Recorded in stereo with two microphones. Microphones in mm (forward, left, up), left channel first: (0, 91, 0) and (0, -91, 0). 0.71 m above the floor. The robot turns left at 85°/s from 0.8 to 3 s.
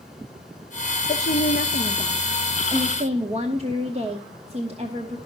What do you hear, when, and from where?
1.1 s a woman speaking: 125° left, 1.0 m; by 5.2 s 40° right, 1.0 m